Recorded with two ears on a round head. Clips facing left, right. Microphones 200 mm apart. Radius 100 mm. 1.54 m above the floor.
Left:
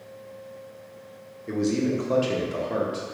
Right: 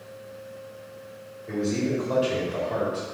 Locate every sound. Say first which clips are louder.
1.5 s a man speaking: left 2 dB; 35° left (ahead or behind), 0.8 m